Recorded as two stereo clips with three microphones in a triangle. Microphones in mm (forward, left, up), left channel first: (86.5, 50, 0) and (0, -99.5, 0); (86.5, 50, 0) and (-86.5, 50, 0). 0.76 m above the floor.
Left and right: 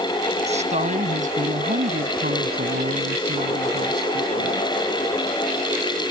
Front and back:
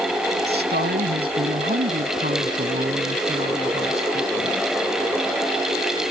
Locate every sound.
0.5 s a woman speaking: 170° right; by 4.7 s 120° right